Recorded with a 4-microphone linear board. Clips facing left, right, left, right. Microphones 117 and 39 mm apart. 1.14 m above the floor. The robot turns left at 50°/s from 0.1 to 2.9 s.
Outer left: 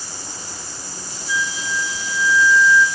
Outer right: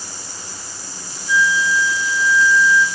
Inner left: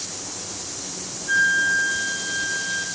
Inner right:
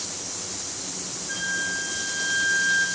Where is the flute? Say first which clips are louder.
Outer right 7 dB, inner left 10 dB; 80° left, 1.6 m; by 2.9 s straight ahead, 1.6 m.